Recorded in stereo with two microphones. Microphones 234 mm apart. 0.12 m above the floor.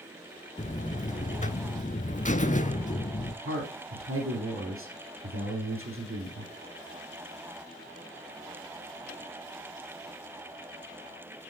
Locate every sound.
0.6 s a buzzer: 35° left (ahead or behind), 0.5 m
3.5 s a man speaking: 65° right (ahead or behind), 3 m